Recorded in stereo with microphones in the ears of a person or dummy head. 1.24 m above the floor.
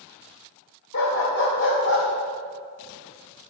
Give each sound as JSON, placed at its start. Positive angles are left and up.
{"t": 0.9, "sound": "a dog barking", "side_deg": 60, "distance_m": 1.9}